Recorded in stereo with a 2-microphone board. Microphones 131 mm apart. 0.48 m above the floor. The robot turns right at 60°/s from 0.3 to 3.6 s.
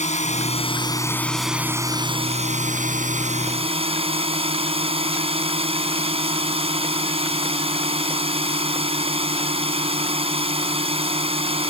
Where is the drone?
115° left; by 11.7 s 50° right.